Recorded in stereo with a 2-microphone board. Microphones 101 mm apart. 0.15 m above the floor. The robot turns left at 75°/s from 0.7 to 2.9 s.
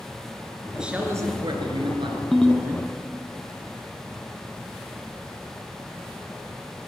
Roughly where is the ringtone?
Centre.